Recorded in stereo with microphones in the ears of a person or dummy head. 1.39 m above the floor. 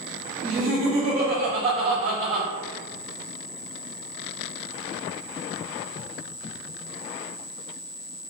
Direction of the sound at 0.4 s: 40° right (ahead or behind).